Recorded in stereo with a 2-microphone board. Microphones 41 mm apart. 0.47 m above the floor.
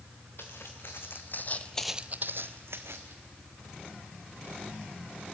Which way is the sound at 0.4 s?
70° left (ahead or behind).